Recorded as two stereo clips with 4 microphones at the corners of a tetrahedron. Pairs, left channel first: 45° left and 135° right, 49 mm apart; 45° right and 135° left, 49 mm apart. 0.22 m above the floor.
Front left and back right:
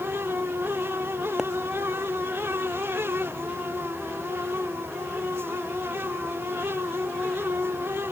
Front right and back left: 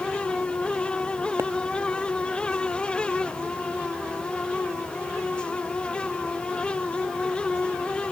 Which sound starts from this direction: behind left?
A pop, at 1.4 s.